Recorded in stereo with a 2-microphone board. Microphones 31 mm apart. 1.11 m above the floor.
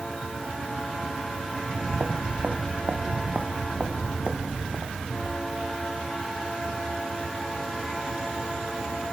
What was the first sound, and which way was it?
Footsteps, 65° right (ahead or behind).